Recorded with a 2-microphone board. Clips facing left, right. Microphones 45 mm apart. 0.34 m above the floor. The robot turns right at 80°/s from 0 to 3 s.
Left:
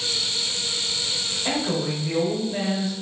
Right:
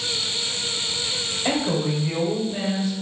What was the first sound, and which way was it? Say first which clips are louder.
A woman speaking: right 2 dB; 65° right.